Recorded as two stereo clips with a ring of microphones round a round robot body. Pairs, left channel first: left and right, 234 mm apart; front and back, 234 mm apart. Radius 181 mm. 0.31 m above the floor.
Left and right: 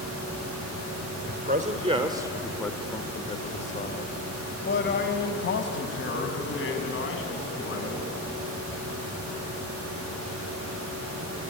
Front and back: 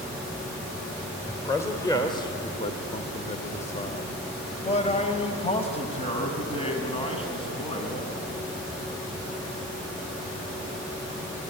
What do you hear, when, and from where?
1.3 s a man speaking: 80° right, 1.4 m; by 8.1 s 65° left, 4 m